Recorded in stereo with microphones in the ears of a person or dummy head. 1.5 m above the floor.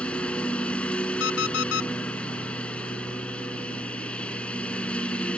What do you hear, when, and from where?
0.0 s a lawn mower: 5° left (ahead or behind)
1.2 s an alarm clock: 80° left